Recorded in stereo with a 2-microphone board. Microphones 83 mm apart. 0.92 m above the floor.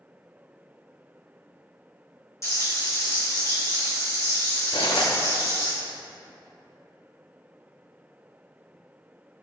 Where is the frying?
35° left (ahead or behind), 1.9 m.